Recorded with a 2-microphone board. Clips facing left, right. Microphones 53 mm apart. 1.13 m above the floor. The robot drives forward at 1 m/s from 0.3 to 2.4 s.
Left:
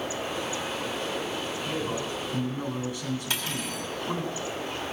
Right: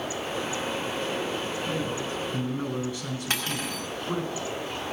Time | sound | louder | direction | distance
1.6 | a man speaking | right 1 dB | 25° left (ahead or behind) | 8 m
3.3 | cutlery clinking | right 2 dB | 50° right (ahead or behind) | 4 m